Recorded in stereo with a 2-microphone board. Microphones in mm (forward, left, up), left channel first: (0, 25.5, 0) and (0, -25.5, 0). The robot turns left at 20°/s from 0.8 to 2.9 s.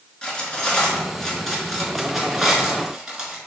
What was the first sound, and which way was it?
Cutlery clinking, 20° left (ahead or behind).